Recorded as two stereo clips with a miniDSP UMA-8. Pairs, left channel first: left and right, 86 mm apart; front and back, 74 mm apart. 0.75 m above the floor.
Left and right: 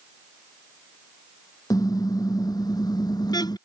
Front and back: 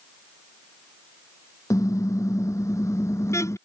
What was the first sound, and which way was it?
A car horn, 45° left.